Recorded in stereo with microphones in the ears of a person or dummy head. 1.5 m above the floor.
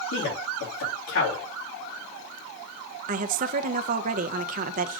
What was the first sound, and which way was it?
A man speaking, 65° left (ahead or behind).